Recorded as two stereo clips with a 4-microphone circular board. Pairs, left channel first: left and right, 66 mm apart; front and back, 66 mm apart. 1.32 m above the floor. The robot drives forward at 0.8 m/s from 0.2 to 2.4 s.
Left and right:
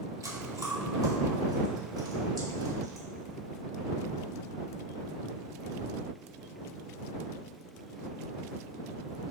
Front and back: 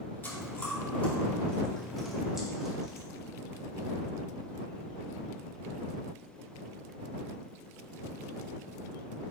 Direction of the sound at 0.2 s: 55° right.